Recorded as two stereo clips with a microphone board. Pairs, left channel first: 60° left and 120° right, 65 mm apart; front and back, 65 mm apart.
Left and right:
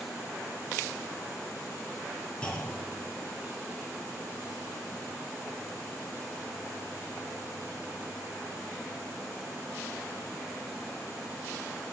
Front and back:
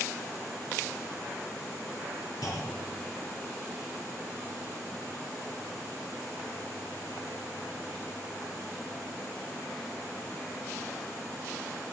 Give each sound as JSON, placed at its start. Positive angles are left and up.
{"t": 2.4, "sound": "a clunk", "azimuth_deg": -10, "distance_m": 2.5}